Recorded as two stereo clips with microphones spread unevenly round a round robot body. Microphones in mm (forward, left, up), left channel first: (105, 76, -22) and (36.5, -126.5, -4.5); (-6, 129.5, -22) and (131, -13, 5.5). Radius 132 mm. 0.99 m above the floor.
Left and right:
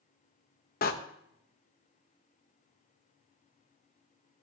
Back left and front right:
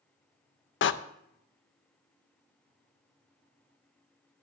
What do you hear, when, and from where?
0.8 s a door slam: 125° left, 0.6 m